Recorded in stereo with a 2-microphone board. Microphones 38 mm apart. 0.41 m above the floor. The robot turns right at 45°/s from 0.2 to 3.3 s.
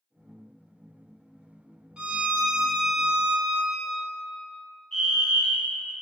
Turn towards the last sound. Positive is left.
turn(degrees=20)  # may be behind; listen again after turning